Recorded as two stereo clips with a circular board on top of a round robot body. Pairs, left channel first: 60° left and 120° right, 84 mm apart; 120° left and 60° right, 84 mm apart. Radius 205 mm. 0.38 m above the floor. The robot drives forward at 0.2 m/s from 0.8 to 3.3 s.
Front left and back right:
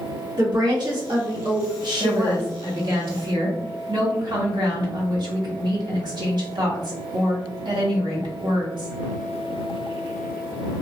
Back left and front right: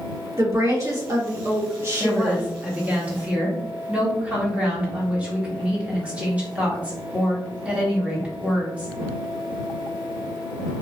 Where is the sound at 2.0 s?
125° right, 1.4 m; by 8.9 s 135° right, 1.6 m.